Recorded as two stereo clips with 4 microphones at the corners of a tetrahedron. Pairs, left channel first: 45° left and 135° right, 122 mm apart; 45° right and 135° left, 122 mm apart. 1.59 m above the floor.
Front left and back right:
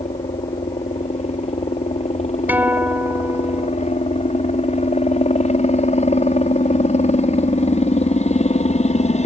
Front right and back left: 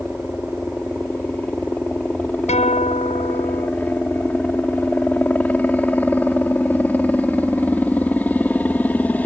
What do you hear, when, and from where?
0.0 s a helicopter: 30° left
2.5 s a guitar: 60° right